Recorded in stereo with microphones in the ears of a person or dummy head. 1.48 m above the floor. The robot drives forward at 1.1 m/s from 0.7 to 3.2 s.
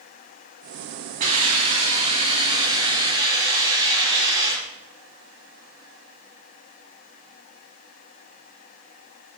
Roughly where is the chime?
I don't hear a chime.